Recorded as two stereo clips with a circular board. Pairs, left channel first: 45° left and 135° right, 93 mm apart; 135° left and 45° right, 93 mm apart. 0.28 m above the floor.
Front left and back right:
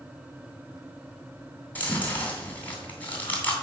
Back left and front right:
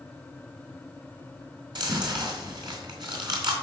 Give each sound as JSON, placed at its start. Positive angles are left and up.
{"t": 1.8, "sound": "chewing", "azimuth_deg": -25, "distance_m": 2.5}